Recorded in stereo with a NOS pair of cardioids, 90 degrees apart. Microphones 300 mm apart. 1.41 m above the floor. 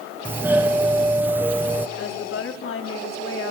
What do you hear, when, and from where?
0.2 s a doorbell: 5° right, 0.9 m
2.0 s a woman speaking: 45° left, 4 m